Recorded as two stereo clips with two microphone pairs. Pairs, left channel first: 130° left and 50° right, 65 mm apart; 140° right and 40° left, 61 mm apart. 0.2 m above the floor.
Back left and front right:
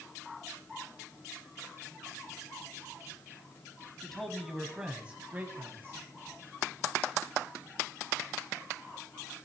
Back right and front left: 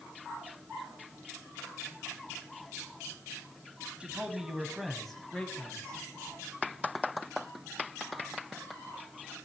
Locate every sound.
4.0 s a man speaking: 60° left, 1.0 m; by 6.0 s 75° right, 1.3 m